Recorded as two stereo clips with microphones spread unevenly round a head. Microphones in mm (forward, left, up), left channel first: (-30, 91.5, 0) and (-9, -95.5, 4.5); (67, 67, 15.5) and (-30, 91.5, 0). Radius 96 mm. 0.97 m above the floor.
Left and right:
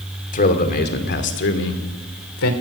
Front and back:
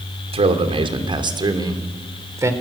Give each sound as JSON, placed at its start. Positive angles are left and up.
{"t": 0.3, "sound": "a man speaking", "azimuth_deg": 145, "distance_m": 2.5}